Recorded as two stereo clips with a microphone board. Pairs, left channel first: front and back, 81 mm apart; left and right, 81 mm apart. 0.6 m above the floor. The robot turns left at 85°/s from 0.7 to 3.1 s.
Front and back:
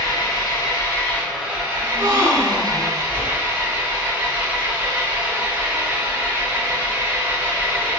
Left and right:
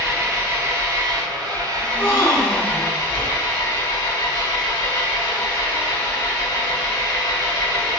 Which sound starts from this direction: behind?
A gasp, at 1.8 s.